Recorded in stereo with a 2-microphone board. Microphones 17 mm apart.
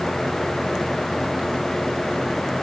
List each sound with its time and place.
Only background noise.